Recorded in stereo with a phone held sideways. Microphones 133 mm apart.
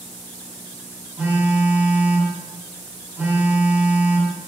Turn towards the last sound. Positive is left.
turn(degrees=-10)  # may be behind; listen again after turning